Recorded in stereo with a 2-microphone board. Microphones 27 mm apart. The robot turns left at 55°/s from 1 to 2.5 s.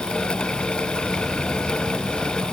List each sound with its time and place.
Only background noise.